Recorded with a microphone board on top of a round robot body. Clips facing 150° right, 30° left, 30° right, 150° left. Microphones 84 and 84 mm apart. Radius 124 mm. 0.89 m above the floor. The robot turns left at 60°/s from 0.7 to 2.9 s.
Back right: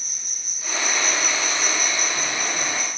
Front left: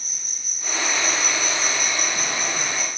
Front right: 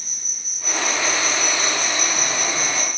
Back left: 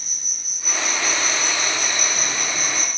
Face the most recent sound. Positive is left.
turn(degrees=10)